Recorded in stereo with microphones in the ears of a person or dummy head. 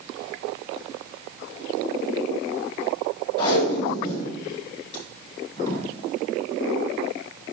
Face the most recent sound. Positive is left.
turn(degrees=30)  # may be behind; listen again after turning